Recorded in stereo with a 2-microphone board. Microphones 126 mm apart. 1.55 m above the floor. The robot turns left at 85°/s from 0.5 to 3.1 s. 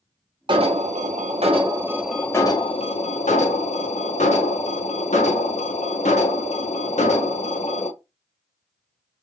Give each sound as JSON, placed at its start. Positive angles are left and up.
{"t": 0.5, "sound": "an alarm", "azimuth_deg": -45, "distance_m": 0.9}